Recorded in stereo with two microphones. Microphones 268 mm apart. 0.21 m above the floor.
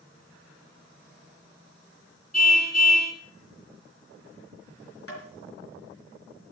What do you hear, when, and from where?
2.3 s a car horn: 70° left (ahead or behind), 2.5 m
5.1 s tapping: 55° left (ahead or behind), 4.5 m